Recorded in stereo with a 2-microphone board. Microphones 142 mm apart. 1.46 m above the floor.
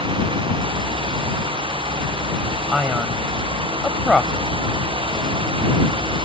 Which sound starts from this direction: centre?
A man speaking, at 2.7 s.